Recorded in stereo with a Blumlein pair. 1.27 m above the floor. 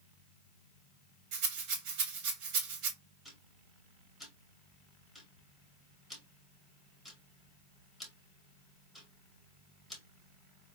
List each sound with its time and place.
1.3 s a rattle: 40° right, 1.8 m
3.2 s ticking: straight ahead, 1.9 m